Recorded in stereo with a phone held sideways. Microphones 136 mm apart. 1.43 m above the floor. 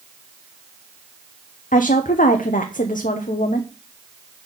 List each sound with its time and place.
1.7 s a woman speaking: 75° left (ahead or behind), 0.7 m